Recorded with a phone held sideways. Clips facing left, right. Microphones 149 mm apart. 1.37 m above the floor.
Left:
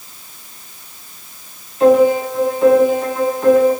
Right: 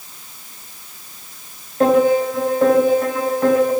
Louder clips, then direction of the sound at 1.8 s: Left 3 dB; 65° right (ahead or behind).